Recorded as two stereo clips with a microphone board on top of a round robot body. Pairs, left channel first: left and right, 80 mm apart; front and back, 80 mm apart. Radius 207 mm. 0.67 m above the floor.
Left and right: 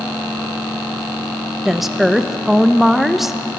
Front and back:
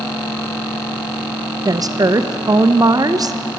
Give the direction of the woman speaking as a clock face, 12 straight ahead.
6 o'clock.